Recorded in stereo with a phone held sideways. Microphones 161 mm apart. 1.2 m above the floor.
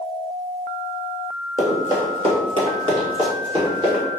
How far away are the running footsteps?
About 1.4 m.